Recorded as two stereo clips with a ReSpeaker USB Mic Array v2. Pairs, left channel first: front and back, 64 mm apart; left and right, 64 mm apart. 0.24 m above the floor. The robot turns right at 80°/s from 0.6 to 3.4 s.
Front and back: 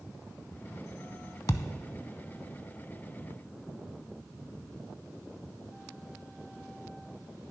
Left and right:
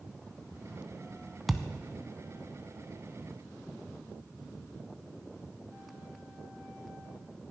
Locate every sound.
1.5 s a thud: straight ahead, 0.5 m; by 1.7 s 20° left, 0.5 m